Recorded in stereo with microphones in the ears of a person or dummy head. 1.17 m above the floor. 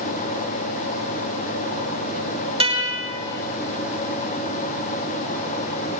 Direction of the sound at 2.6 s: 25° right (ahead or behind).